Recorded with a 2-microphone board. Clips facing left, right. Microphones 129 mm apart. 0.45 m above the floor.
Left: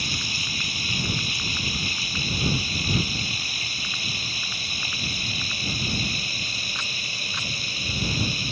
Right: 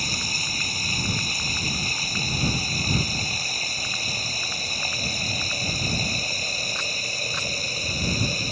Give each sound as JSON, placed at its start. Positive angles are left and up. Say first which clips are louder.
{"t": 0.0, "sound": "running water", "louder": "right 1 dB", "side_deg": -40}